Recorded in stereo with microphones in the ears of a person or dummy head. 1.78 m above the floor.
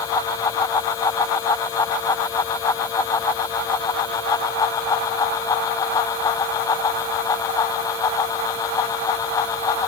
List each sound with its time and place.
Only background noise.